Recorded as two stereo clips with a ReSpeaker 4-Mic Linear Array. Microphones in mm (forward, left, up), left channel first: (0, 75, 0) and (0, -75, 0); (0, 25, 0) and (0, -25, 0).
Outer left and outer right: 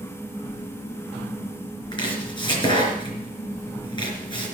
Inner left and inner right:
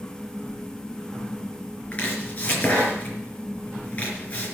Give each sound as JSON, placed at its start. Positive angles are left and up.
{"t": 1.9, "sound": "chopping", "side_deg": 30, "distance_m": 4.0}